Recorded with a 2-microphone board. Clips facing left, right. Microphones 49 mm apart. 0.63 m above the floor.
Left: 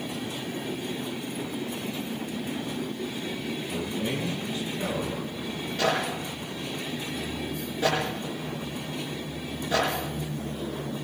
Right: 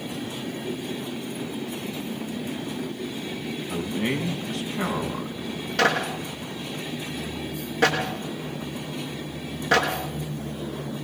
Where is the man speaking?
65° right (ahead or behind), 4 m.